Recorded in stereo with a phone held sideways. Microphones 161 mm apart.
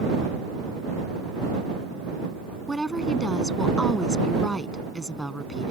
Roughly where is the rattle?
I don't hear a rattle.